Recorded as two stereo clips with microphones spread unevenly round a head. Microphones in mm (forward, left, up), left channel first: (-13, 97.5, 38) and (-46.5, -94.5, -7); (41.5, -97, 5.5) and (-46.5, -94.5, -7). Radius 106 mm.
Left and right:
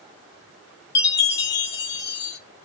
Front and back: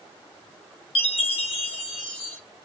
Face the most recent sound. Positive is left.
turn(degrees=35)